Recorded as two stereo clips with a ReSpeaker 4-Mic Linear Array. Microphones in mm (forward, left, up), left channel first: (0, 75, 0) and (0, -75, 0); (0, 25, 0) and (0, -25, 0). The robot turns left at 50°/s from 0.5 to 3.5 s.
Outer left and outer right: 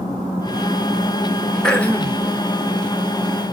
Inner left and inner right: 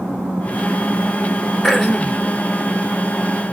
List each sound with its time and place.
1.6 s throat clearing: 5° left (ahead or behind), 0.8 m; by 2.2 s 15° left (ahead or behind), 0.8 m